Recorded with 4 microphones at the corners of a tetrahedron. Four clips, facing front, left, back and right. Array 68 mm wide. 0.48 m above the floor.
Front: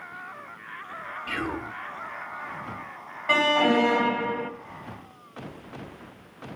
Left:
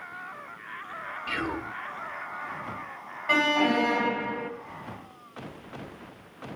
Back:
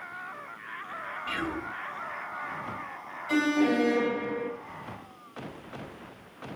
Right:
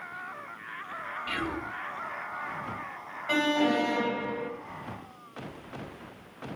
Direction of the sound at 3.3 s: 10° left.